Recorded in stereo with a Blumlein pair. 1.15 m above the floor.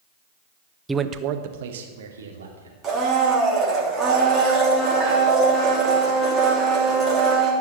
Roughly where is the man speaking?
Ahead.